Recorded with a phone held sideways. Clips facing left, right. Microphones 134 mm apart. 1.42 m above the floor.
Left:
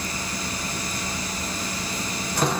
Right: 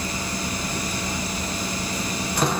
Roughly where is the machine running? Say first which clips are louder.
Right 3 dB; centre.